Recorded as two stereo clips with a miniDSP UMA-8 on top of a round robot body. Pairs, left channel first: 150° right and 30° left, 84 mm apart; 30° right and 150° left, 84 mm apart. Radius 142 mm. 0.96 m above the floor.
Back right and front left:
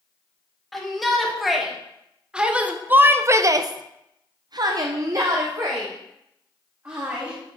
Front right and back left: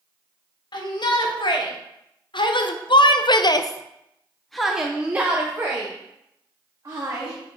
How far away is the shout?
About 1.9 m.